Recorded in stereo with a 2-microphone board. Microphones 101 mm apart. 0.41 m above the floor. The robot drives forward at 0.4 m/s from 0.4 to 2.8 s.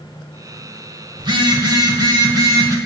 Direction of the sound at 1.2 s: 55° right (ahead or behind).